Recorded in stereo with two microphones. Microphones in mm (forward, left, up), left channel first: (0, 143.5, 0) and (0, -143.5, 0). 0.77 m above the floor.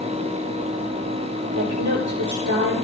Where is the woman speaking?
85° right, 9 m.